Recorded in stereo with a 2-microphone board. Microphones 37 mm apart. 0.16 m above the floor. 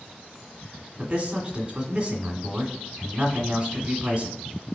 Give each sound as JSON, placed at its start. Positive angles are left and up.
{"t": 1.0, "sound": "a man speaking", "side_deg": -25, "distance_m": 1.8}